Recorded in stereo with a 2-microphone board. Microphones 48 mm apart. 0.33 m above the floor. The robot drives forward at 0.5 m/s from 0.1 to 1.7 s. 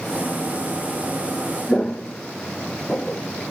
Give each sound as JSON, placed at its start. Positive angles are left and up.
{"t": 1.7, "sound": "footsteps", "side_deg": 10, "distance_m": 0.7}